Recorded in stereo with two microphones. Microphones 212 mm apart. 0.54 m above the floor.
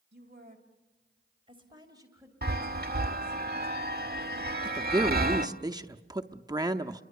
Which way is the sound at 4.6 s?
20° right (ahead or behind).